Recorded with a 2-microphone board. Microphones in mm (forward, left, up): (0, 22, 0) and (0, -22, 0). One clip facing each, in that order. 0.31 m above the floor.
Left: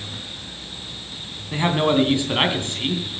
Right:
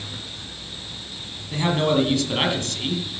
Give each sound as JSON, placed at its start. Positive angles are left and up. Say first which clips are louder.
{"t": 1.5, "sound": "a man speaking", "louder": "left 2 dB", "side_deg": 25, "distance_m": 2.5}